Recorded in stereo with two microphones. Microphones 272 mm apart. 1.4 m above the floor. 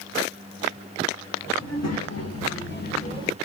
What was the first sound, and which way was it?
A child speaking, 65° left (ahead or behind).